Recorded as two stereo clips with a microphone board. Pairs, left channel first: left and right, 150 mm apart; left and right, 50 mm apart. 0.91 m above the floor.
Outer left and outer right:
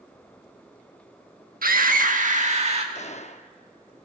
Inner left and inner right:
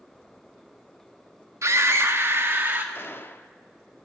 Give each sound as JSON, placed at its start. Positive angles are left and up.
{"t": 1.6, "sound": "a scream", "side_deg": -70, "distance_m": 1.3}
{"t": 3.0, "sound": "a gunshot", "side_deg": 50, "distance_m": 0.6}